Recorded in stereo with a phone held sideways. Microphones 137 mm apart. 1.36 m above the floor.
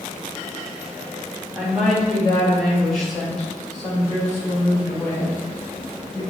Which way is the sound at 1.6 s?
5° right (ahead or behind).